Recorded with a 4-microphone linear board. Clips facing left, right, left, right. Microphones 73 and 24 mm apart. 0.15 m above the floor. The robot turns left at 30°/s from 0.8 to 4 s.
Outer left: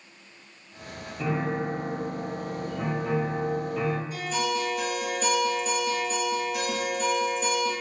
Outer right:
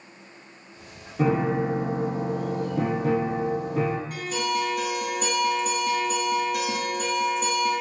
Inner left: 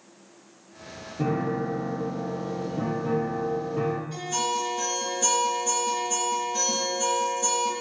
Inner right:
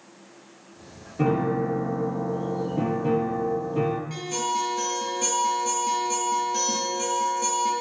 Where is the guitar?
60° right (ahead or behind), 1.8 m.